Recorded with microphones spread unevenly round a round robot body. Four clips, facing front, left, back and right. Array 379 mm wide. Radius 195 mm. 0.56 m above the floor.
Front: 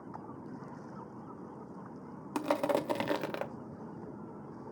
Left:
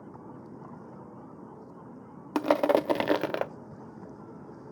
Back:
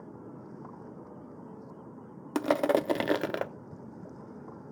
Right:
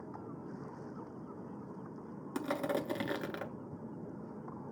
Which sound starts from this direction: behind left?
Crushing, at 2.4 s.